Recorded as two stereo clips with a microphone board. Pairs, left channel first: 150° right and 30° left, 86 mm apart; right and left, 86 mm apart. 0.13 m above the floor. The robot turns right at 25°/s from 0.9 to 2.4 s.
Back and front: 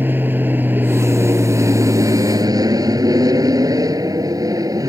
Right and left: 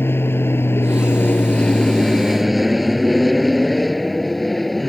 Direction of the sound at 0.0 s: 35° right.